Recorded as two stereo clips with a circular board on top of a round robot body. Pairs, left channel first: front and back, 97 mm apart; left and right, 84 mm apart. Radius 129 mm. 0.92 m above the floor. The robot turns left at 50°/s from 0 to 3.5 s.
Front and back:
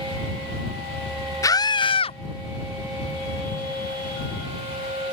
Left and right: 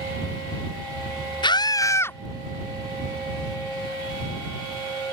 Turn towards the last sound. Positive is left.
turn(degrees=-45)